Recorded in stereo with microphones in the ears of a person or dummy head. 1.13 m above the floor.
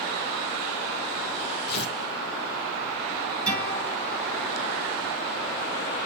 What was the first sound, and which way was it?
Tearing paper, 55° left (ahead or behind).